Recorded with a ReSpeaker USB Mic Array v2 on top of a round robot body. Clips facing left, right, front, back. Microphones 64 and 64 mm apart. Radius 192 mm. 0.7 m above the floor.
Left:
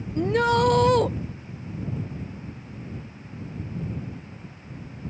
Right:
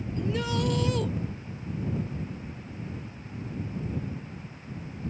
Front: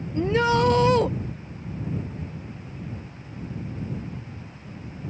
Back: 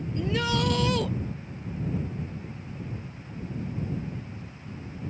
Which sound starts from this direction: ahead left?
A shout, at 0.1 s.